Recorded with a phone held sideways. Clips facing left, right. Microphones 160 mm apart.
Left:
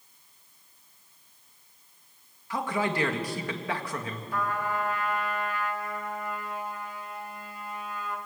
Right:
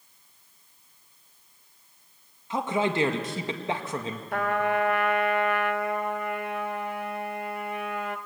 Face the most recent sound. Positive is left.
turn(degrees=-65)  # may be behind; listen again after turning